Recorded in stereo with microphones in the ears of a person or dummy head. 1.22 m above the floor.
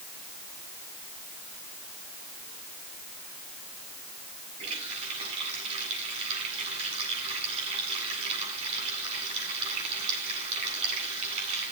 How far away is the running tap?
About 9 m.